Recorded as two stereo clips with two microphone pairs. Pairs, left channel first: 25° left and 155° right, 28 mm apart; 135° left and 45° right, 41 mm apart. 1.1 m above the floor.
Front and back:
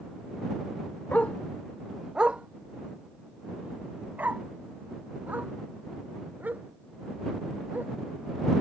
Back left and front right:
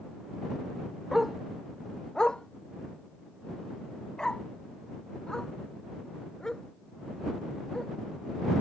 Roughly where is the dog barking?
Ahead left.